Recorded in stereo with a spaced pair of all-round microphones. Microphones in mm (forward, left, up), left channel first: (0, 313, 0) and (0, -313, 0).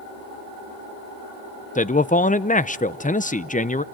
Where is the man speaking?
15° left (ahead or behind), 0.6 m.